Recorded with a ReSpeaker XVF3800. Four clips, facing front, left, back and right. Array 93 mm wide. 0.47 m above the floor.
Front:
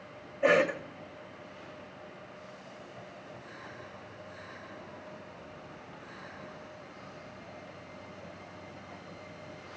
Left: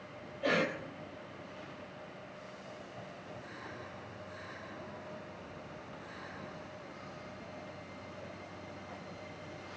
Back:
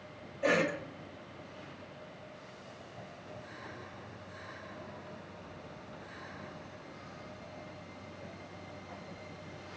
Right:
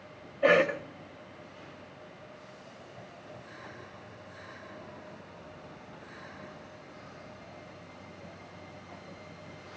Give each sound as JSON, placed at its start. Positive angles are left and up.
{"t": 0.4, "sound": "a cough", "azimuth_deg": -60, "distance_m": 2.5}